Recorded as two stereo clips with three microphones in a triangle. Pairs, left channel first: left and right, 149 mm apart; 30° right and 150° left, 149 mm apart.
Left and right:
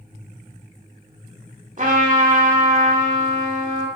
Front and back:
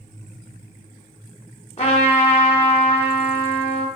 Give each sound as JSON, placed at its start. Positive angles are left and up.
{"t": 1.8, "sound": "a trumpet", "azimuth_deg": -70, "distance_m": 0.6}